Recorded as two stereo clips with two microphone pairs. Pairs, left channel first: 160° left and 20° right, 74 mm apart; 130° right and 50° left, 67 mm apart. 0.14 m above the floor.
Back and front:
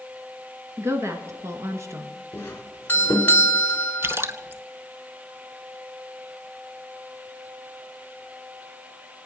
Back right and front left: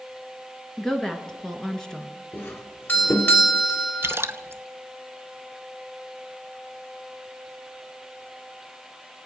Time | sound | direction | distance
0.8 | a woman speaking | 55° right | 2 m
2.3 | a doorbell | 160° right | 1.8 m
4.0 | a splash | 15° left | 0.7 m